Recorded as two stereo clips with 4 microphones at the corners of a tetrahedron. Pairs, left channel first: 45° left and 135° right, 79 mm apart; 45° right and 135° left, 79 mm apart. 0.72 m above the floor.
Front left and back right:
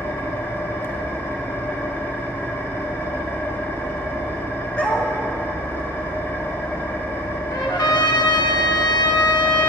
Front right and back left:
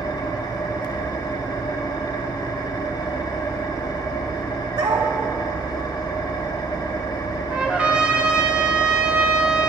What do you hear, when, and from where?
0.0 s an engine running: 15° right, 1.6 m
4.8 s a dog barking: 120° left, 1.5 m
7.5 s a trumpet: 60° left, 1.0 m